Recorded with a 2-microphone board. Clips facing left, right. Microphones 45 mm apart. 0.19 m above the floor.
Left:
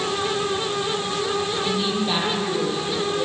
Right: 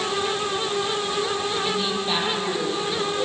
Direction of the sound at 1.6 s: 5° left (ahead or behind).